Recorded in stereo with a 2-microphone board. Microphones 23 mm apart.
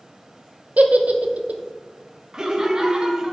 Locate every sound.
0.8 s a giggle: 70° right (ahead or behind), 0.6 m
2.3 s laughter: 30° right (ahead or behind), 0.8 m